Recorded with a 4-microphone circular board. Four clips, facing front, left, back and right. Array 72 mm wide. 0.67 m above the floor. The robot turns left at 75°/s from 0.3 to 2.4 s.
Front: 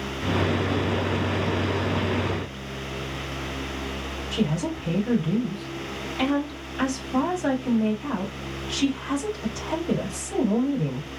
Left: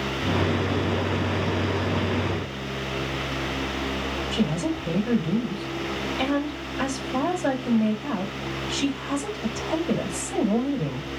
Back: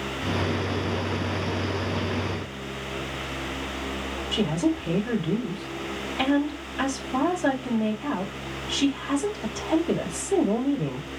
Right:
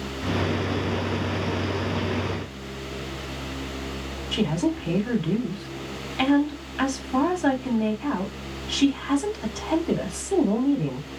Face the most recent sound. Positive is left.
turn(degrees=-100)